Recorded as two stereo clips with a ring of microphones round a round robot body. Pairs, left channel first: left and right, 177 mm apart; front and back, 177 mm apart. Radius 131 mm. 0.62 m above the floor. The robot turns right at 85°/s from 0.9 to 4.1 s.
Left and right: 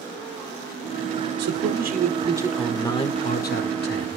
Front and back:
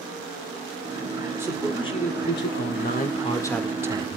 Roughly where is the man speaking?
Right.